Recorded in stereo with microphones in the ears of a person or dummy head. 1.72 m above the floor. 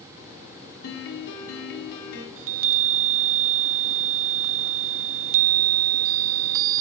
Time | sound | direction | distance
0.8 | a piano | 70° left (ahead or behind) | 2.5 m
2.4 | a chime | 75° right (ahead or behind) | 0.6 m